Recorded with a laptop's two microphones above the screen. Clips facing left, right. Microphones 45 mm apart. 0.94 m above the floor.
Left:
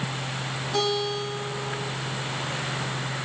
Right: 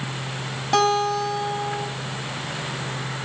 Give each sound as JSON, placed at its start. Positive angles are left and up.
{"t": 0.7, "sound": "a guitar", "side_deg": -90, "distance_m": 5.5}